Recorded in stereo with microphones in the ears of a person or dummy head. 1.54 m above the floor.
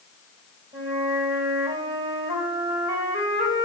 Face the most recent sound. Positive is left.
turn(degrees=-20)  # may be behind; listen again after turning